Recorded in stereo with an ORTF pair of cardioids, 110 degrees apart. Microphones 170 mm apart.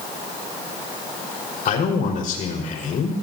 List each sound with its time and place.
1.6 s a man speaking: 60° left, 5 m